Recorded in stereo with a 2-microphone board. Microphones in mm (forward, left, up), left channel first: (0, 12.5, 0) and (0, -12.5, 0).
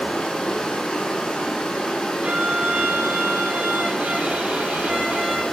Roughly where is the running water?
Left.